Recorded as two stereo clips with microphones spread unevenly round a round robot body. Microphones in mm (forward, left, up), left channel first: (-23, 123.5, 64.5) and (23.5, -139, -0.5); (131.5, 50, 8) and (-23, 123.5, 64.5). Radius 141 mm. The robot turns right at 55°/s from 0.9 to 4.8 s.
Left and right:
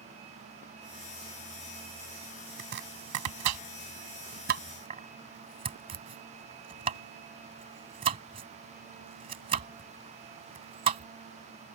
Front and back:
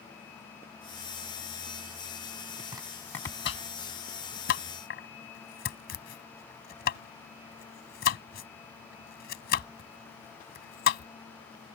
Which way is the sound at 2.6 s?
135° right.